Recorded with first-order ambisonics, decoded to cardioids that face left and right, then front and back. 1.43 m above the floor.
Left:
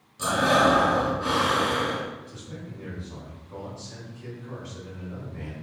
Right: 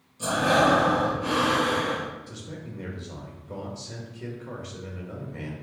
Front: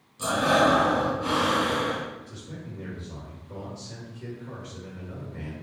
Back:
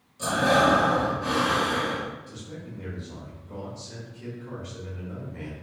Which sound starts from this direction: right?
A man speaking, at 2.3 s.